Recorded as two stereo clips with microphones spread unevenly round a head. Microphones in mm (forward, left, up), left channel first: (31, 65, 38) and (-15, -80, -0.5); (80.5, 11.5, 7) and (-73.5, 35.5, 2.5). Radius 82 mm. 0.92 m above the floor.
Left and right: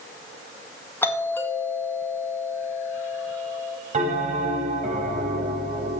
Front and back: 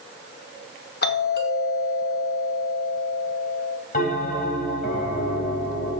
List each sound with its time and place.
1.0 s a doorbell: 10° right, 2 m
3.9 s a bell: 60° right, 3.5 m